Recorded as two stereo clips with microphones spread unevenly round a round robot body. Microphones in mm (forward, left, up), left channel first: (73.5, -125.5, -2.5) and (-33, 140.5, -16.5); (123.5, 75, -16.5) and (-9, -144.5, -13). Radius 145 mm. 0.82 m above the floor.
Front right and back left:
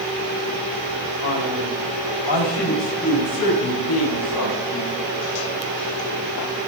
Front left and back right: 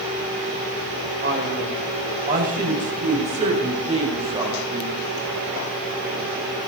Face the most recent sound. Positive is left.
turn(degrees=-50)